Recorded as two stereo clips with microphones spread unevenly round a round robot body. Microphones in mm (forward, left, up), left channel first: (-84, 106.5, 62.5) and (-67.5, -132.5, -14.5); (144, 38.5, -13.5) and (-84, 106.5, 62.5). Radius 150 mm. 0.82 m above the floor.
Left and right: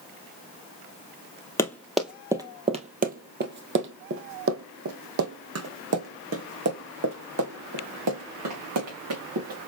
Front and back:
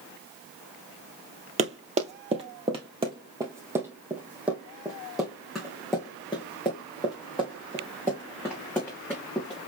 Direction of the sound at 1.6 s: 145° left.